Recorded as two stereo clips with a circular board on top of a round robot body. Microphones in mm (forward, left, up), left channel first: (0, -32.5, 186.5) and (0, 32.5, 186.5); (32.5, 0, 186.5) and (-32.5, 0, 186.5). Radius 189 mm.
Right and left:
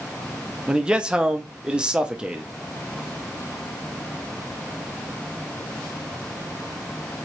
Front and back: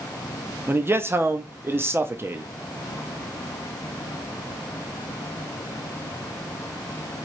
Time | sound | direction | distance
0.7 | a man speaking | 160° left | 0.7 m